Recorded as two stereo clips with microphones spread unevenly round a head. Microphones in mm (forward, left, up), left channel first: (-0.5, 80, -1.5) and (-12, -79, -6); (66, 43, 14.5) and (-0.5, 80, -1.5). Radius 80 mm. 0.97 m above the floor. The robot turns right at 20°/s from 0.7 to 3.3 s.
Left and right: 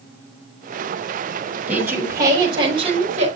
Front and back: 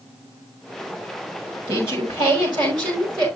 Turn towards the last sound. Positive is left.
turn(degrees=-140)